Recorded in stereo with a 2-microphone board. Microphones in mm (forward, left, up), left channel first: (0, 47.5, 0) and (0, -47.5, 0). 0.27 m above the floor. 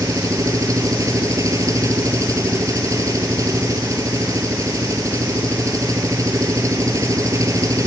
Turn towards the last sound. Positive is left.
turn(degrees=-35)  # may be behind; listen again after turning